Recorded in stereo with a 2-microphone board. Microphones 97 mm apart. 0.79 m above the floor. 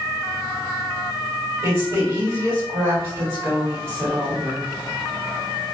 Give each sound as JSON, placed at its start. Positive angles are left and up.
{"t": 1.6, "sound": "a woman speaking", "side_deg": -40, "distance_m": 1.3}